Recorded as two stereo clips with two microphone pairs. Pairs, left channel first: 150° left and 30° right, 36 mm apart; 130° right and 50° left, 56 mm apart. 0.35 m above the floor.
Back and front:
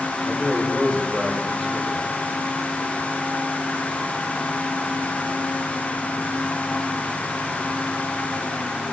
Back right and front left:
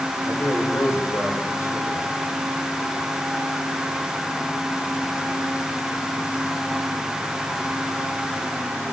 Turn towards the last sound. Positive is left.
turn(degrees=-145)